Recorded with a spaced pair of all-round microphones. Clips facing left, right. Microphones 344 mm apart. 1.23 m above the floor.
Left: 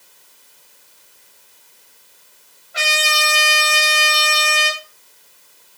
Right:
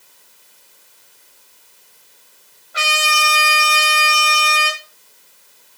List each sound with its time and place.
2.7 s a trumpet: centre (ahead or behind), 5 m